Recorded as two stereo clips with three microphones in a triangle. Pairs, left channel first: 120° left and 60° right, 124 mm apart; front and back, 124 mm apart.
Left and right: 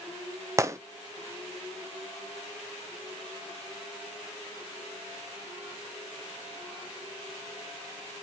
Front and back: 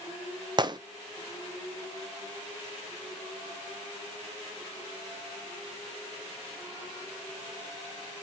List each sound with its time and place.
0.6 s a gunshot: 125° right, 0.7 m